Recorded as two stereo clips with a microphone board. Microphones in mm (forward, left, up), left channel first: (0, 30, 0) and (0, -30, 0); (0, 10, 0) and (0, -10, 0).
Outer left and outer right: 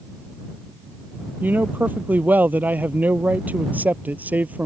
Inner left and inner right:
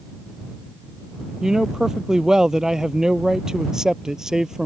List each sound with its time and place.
1.4 s a man speaking: 30° right (ahead or behind); by 4.7 s 25° right (ahead or behind)